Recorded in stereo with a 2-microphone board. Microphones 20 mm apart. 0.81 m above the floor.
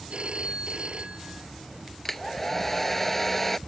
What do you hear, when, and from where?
0.1 s a phone ringing: 60° right (ahead or behind)
2.0 s a hair dryer: 15° left (ahead or behind)